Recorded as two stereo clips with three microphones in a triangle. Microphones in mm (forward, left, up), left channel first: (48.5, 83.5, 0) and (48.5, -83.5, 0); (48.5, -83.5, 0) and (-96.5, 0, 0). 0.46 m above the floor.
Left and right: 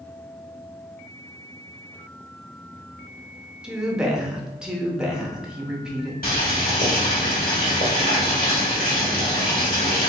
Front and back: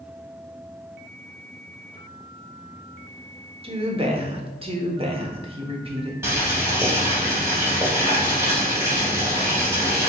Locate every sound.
3.6 s a woman speaking: 175° right, 1.0 m
6.2 s boiling: 80° left, 2.0 m